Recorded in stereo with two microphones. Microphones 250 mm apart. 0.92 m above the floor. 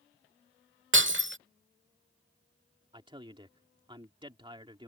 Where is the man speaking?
20° right (ahead or behind).